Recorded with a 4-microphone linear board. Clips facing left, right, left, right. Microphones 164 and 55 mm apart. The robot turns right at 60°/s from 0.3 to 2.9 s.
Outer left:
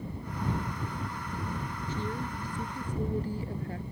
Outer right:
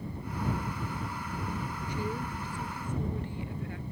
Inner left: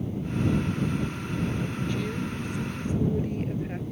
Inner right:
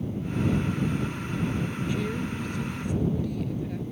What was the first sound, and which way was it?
A woman speaking, 15° right.